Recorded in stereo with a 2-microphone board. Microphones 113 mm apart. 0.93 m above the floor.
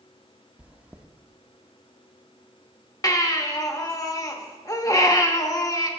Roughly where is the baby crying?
Left.